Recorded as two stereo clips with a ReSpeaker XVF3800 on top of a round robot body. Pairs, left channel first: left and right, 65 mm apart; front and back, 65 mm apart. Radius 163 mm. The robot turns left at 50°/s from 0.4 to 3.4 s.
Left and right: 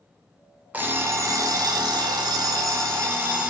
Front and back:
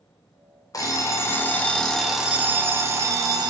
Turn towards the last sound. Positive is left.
turn(degrees=-155)